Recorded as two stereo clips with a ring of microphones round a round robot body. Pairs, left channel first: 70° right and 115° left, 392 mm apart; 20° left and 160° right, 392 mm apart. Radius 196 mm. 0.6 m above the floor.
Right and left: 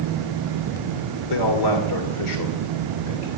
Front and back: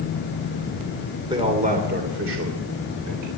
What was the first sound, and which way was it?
A man speaking, 80° right.